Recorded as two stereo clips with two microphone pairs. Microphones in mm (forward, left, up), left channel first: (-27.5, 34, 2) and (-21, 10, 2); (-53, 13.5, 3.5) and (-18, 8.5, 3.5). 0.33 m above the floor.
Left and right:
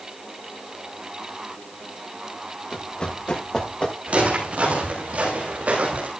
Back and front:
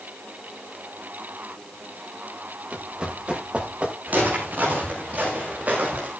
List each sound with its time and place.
2.7 s running footsteps: 55° left, 6.5 m; by 4.0 s 50° left, 7 m
4.1 s footsteps: 40° right, 10 m; by 6.1 s 50° right, 8.5 m